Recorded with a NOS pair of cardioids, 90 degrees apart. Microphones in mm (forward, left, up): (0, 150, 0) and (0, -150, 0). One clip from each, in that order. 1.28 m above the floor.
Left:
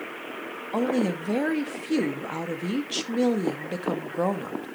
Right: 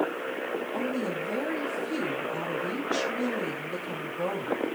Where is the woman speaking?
70° left, 2 m.